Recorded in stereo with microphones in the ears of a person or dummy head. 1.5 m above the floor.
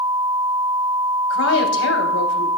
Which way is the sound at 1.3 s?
70° left (ahead or behind).